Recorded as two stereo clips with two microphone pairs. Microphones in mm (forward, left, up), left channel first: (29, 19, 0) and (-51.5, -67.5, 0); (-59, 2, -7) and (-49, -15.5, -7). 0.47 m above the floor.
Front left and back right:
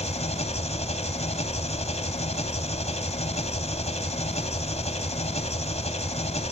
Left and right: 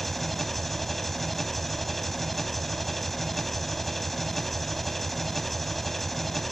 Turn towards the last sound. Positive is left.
turn(degrees=35)